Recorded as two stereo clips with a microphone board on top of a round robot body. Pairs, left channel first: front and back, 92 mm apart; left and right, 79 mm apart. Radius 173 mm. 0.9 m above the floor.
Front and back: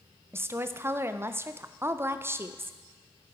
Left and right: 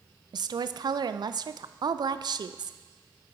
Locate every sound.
0.3 s a woman speaking: 120° right, 0.5 m